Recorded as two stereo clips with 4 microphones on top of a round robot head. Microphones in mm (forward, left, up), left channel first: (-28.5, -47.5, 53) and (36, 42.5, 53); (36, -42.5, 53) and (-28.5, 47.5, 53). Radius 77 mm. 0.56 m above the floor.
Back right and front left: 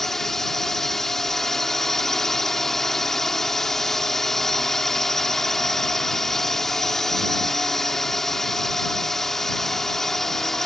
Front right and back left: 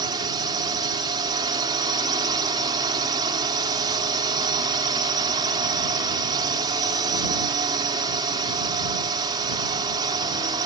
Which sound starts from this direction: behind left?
A drone, at 0.0 s.